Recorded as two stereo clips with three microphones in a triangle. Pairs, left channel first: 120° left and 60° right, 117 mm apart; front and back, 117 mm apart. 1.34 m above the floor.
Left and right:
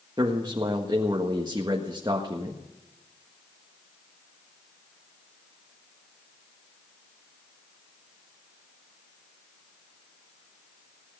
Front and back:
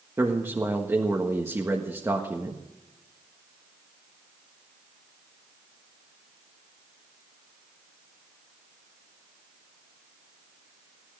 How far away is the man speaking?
About 1.6 m.